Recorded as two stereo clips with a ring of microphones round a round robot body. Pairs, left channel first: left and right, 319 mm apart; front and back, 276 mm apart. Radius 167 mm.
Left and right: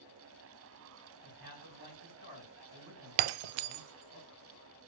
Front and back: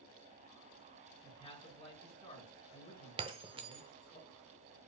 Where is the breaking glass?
105° right, 0.5 m.